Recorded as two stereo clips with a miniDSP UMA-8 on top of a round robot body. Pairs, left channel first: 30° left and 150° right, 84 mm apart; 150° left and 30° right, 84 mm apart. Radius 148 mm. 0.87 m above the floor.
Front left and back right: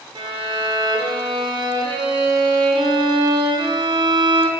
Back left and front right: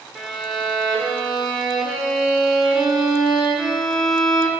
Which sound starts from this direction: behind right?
A violin, at 0.1 s.